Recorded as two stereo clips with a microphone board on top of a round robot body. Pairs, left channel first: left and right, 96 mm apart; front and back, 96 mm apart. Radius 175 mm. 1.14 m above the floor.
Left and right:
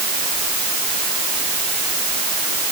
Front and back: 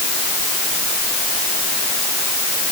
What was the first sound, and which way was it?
Only background noise.